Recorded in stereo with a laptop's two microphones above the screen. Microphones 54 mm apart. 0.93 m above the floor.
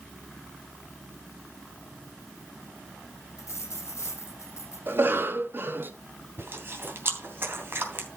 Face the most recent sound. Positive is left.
turn(degrees=-45)  # may be behind; listen again after turning